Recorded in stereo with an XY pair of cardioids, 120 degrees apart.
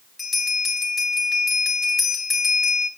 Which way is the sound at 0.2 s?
35° left.